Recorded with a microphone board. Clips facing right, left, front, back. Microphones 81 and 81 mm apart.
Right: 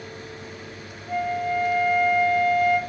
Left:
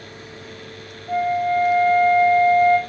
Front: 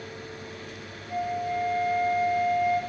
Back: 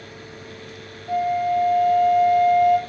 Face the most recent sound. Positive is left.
turn(degrees=150)